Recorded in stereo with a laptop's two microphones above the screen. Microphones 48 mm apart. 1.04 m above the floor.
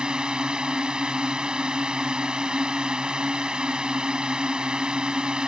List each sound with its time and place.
0.0 s a drone: 20° right (ahead or behind)